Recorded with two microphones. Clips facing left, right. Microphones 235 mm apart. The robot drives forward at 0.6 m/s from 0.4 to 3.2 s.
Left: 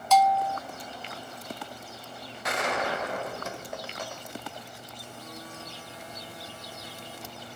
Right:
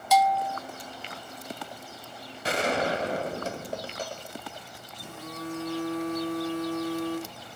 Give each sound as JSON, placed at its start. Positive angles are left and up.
{"t": 0.1, "sound": "a bell", "side_deg": -10, "distance_m": 0.5}
{"t": 2.4, "sound": "a gunshot", "side_deg": -30, "distance_m": 1.7}
{"t": 4.9, "sound": "a phone buzzing", "side_deg": -85, "distance_m": 3.0}